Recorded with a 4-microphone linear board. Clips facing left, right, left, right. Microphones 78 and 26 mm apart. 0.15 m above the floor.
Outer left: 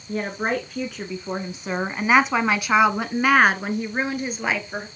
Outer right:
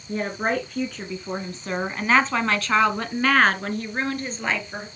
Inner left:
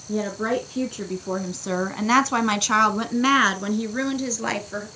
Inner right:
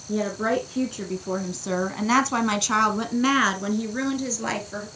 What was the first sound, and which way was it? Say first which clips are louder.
A woman speaking: even, even; centre (ahead or behind).